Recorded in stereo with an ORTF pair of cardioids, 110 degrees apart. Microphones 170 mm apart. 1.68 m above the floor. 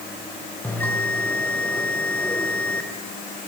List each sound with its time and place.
0.6 s a bell: 10° left, 1.8 m